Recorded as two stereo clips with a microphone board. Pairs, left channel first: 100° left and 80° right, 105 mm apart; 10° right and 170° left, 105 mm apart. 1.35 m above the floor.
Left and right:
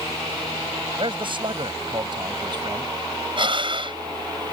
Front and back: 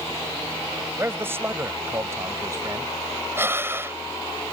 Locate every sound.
1.0 s a man speaking: 120° right; by 2.9 s 130° right
3.4 s breathing: 120° right